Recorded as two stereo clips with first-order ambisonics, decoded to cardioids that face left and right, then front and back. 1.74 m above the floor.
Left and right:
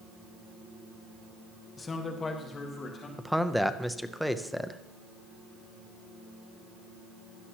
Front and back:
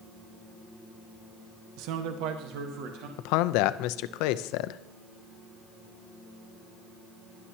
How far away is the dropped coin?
No dropped coin in this recording.